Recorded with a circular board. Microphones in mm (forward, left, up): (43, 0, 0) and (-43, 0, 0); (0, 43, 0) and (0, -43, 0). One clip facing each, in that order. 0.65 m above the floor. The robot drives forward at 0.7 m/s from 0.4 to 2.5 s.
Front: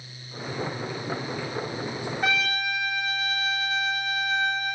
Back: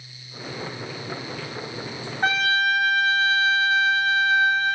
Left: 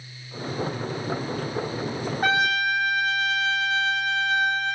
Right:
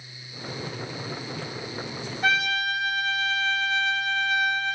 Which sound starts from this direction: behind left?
A trumpet, at 2.2 s.